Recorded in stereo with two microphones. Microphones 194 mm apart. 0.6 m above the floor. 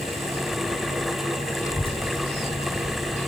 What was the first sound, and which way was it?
A child speaking, 15° left (ahead or behind).